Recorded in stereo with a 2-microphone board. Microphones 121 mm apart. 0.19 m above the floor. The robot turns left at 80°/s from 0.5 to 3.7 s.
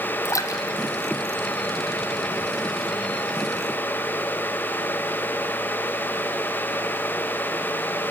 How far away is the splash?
About 1.8 m.